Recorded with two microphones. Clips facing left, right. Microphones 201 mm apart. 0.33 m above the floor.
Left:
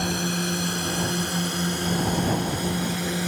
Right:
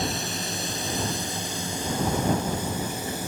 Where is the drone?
60° left (ahead or behind); by 3.3 s 75° left (ahead or behind).